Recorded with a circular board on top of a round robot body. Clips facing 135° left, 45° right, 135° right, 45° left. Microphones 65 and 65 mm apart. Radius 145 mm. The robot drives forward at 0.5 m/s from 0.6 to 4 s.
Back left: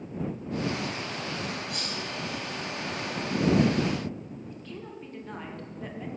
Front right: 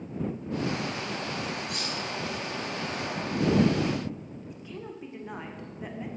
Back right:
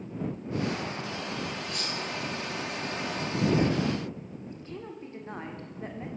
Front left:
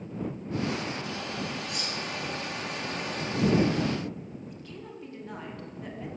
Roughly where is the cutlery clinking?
Ahead right.